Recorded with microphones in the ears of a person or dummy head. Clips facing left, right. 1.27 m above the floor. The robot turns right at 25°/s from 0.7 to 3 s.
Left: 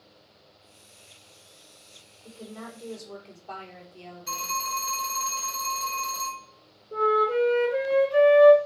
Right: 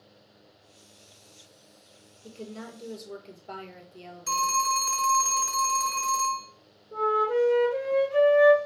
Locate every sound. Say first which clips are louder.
2.2 s a woman speaking: right 1 dB; 35° right (ahead or behind), 0.8 m; by 4.6 s 20° right (ahead or behind), 0.8 m
4.3 s a phone ringing: right 7 dB; 50° right (ahead or behind), 1.3 m
6.9 s a flute: left 2 dB; 30° left (ahead or behind), 1.8 m